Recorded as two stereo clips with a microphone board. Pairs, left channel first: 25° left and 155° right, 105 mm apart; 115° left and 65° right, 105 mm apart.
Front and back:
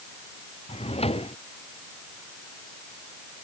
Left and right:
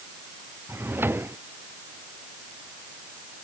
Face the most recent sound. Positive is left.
turn(degrees=5)